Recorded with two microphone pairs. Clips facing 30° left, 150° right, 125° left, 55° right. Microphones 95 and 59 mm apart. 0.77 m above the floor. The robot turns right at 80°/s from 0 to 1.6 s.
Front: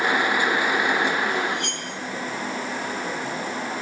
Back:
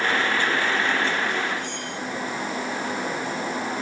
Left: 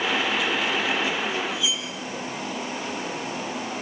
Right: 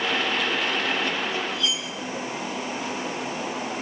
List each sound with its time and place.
1.5 s cutlery clinking: 35° left, 5.5 m; by 1.9 s 40° left, 5.5 m